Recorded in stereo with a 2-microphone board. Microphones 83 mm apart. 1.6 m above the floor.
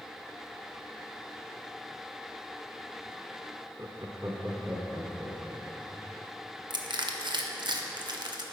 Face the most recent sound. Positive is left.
turn(degrees=-65)  # may be behind; listen again after turning